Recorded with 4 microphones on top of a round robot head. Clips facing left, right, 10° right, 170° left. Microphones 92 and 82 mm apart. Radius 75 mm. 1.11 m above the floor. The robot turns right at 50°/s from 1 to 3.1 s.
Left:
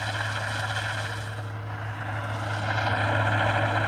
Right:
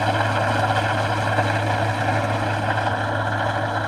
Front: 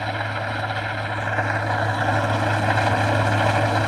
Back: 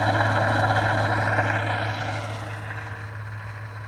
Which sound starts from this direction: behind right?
An engine running, at 0.0 s.